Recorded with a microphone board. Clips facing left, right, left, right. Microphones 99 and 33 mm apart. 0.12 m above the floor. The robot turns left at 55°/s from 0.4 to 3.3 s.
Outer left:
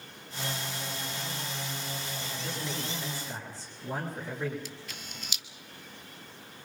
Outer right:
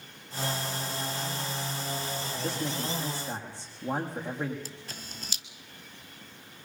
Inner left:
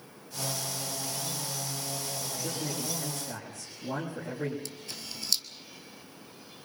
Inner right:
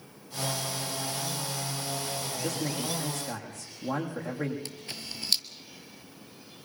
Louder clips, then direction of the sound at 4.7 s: Even, inner right 2 dB; 35° right (ahead or behind).